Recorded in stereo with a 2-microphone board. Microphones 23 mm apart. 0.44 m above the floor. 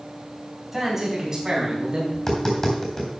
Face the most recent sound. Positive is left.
turn(degrees=20)  # may be behind; listen again after turning